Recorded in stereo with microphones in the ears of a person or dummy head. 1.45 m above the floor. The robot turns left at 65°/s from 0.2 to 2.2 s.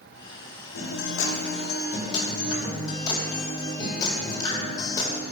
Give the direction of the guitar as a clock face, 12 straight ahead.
8 o'clock.